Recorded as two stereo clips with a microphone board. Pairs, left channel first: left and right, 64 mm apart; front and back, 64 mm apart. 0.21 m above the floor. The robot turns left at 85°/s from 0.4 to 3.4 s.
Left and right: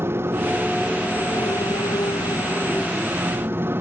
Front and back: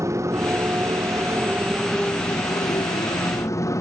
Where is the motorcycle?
140° right; by 3.8 s 35° right.